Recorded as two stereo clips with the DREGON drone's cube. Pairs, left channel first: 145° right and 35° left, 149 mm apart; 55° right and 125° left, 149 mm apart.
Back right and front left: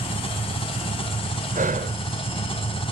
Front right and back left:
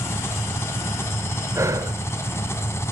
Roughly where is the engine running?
Behind right.